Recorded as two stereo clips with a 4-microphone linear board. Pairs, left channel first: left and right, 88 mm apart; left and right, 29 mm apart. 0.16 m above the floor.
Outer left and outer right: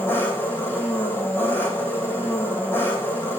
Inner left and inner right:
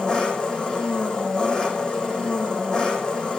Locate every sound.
0.0 s an engine running: 25° left (ahead or behind), 4 m